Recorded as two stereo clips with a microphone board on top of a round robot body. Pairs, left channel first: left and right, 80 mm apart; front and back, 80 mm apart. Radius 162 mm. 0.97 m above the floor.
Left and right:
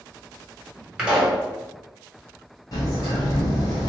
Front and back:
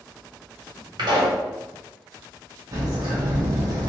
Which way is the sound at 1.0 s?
170° right.